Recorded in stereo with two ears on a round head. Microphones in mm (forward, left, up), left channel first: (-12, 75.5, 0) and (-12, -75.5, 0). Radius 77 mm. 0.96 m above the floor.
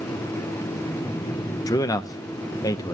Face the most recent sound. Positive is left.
turn(degrees=20)  # may be behind; listen again after turning